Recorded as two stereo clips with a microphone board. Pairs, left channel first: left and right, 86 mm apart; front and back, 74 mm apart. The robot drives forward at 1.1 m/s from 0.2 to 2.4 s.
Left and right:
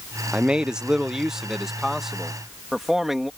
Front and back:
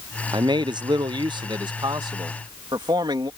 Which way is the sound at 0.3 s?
170° right.